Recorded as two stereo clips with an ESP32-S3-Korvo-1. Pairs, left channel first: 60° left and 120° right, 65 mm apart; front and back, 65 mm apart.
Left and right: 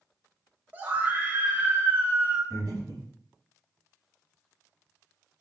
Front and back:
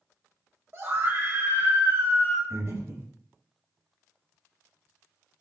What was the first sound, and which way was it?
A scream, 165° right.